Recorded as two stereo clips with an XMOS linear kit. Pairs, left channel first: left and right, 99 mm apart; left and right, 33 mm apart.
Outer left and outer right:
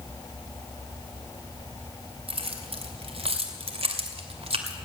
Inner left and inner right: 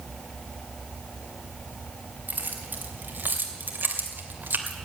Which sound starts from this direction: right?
Keys jangling, at 2.3 s.